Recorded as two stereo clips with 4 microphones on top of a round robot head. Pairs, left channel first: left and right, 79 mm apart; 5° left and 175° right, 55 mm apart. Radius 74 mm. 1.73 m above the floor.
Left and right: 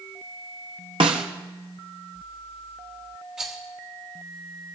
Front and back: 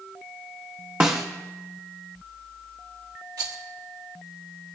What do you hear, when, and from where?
1.0 s a snare drum: 100° right, 0.8 m
3.4 s a rattle: 175° right, 1.2 m